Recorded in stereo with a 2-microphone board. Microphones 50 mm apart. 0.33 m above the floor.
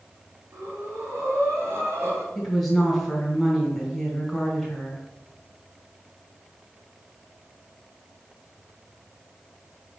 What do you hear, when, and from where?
0.5 s breathing: 55° right (ahead or behind), 2 m
2.4 s a woman speaking: 5° left (ahead or behind), 2.5 m